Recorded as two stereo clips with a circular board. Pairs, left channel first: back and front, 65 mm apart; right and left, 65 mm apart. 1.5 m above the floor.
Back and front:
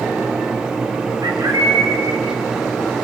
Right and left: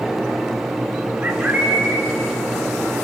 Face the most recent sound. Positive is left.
turn(degrees=25)